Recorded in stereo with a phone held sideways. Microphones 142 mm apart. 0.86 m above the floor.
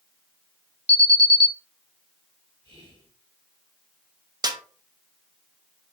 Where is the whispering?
35° left (ahead or behind), 2.5 m.